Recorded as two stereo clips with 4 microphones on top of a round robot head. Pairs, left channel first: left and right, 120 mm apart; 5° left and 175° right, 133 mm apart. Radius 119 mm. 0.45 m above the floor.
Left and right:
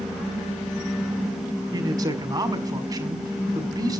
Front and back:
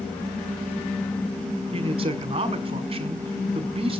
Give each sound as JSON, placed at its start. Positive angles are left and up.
{"t": 1.7, "sound": "a man speaking", "azimuth_deg": -140, "distance_m": 1.9}